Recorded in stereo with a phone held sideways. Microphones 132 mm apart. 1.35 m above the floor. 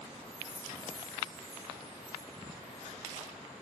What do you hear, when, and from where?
0.1 s a chime: 25° left (ahead or behind), 1.4 m